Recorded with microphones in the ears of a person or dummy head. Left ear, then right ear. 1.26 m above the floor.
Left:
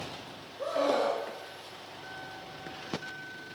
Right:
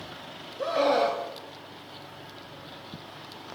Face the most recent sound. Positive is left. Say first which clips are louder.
# right 4 dB
turn(degrees=-25)  # may be behind; listen again after turning